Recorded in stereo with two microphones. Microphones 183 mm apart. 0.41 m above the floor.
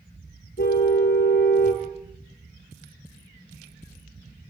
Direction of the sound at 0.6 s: 65° left (ahead or behind).